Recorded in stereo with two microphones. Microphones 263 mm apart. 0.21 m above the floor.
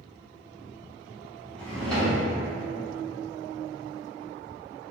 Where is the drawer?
5° left (ahead or behind), 1.5 m.